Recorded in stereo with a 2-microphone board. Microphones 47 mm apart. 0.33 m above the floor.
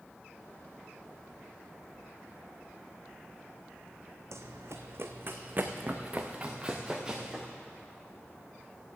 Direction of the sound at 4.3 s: 75° right (ahead or behind).